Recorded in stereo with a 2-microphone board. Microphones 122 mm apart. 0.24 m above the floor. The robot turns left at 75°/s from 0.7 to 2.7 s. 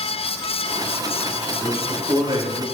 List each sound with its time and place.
1.6 s a man speaking: 35° right, 1.4 m; by 2.6 s 110° right, 1.4 m